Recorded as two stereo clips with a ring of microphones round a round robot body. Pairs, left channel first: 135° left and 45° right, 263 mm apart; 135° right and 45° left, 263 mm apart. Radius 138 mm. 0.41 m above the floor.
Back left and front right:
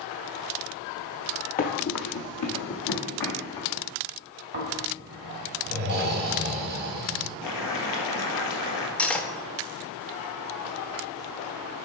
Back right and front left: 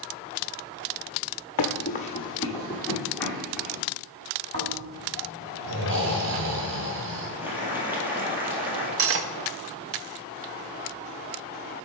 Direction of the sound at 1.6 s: 165° right.